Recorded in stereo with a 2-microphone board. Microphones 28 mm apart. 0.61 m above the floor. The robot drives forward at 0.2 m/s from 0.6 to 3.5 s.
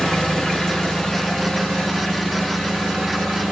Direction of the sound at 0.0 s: 25° left (ahead or behind).